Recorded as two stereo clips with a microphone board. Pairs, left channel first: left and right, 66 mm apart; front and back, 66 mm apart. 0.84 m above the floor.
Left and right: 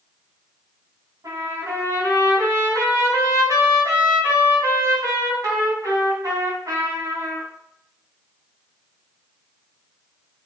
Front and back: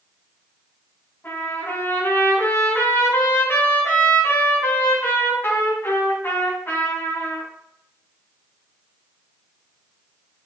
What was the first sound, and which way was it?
A trumpet, 60° right.